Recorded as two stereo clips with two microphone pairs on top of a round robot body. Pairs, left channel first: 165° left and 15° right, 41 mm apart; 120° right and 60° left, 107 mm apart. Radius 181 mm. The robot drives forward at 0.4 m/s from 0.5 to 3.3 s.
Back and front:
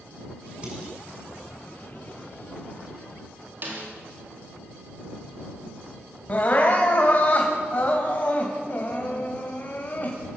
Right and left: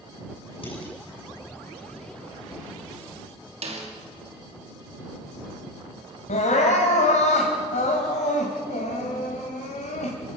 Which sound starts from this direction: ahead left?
A snare drum, at 3.6 s.